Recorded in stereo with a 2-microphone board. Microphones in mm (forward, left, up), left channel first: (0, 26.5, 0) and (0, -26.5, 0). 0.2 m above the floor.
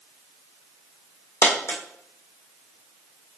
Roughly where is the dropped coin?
Left.